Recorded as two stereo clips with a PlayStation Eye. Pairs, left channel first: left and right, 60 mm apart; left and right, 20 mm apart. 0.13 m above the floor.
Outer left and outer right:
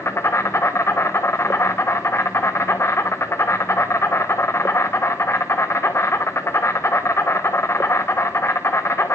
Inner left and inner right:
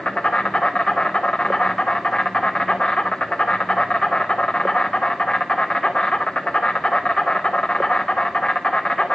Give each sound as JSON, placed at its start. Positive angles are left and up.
{"t": 0.0, "sound": "an insect", "side_deg": 45, "distance_m": 0.7}